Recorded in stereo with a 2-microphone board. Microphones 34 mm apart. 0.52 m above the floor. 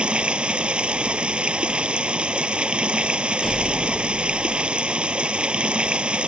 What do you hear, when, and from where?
0.0 s running water: 35° right (ahead or behind)
3.4 s a door slam: 5° right (ahead or behind)